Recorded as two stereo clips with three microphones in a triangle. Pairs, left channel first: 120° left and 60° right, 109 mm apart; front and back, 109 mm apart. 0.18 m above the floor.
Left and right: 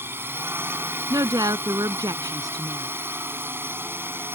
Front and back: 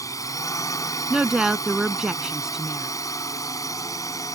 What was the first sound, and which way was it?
A drone, 10° right.